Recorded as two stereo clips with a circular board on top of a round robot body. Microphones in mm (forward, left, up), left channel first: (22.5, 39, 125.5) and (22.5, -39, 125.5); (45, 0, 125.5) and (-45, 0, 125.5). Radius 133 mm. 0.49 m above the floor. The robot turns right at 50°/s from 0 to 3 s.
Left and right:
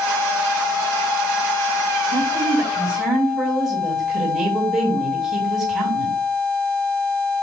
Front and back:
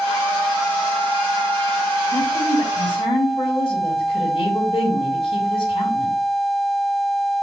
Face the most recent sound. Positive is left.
turn(degrees=-5)